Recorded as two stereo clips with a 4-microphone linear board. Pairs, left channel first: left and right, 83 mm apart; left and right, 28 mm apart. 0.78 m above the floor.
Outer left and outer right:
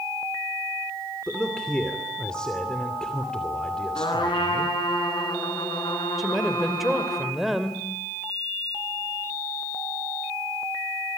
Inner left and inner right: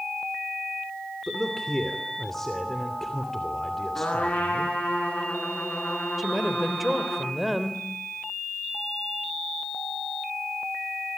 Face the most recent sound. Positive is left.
turn(degrees=-5)  # may be behind; listen again after turning